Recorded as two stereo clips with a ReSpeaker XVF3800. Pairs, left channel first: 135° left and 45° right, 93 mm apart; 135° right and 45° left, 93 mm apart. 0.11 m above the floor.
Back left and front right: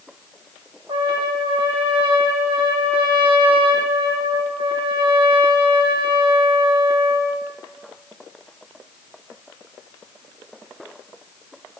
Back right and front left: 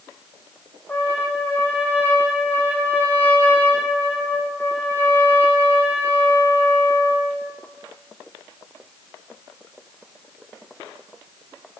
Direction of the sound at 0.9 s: 65° right.